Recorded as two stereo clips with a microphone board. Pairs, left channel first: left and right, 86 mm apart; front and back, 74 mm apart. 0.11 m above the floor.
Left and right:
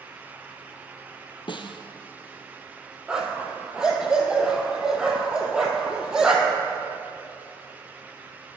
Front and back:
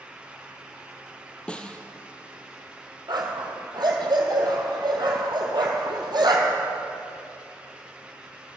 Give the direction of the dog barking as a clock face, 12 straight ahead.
6 o'clock.